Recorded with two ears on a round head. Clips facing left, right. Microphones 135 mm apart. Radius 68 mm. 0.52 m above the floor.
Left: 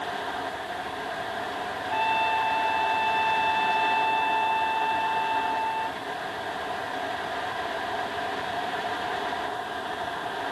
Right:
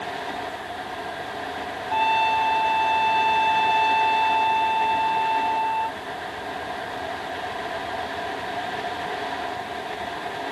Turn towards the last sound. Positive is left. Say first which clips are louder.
# right 5 dB
turn(degrees=-60)  # may be behind; listen again after turning